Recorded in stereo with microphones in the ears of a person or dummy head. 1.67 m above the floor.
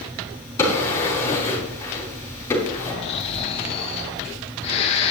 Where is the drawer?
15° left (ahead or behind), 5.5 m.